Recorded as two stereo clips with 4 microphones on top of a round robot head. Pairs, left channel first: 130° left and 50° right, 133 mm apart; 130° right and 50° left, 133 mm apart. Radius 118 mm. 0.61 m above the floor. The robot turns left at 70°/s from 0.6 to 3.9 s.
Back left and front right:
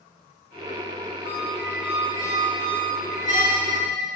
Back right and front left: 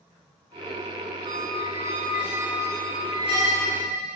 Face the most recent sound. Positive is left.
turn(degrees=-125)